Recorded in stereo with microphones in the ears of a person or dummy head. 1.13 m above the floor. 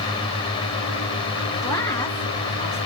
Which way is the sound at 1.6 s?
20° left (ahead or behind).